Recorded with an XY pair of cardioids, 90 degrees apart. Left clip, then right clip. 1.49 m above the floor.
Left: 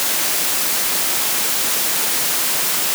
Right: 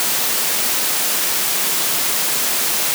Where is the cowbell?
I don't hear a cowbell.